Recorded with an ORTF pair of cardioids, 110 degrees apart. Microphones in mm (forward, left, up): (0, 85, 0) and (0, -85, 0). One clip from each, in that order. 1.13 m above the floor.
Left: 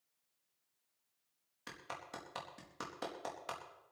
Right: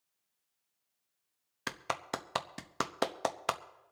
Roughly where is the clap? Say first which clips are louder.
Right 11 dB; ahead right.